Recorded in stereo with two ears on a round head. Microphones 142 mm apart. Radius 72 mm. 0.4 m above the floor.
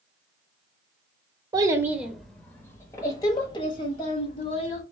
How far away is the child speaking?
About 0.7 m.